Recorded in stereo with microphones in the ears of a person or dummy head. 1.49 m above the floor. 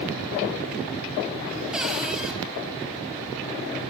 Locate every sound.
1.7 s a cupboard door: 5° right (ahead or behind), 3.5 m